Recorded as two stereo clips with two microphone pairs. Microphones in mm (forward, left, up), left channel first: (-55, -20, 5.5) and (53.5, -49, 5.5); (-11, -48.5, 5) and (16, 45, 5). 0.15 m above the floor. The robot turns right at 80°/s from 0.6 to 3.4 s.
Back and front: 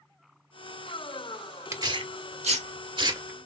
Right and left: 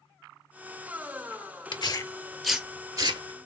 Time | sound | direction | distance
1.7 | tearing paper | 75° right | 0.7 m